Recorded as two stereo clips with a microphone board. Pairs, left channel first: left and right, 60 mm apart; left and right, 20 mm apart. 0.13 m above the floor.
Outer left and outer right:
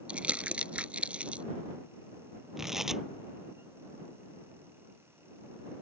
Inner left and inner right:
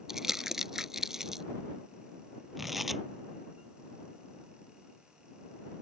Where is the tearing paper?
5° right (ahead or behind).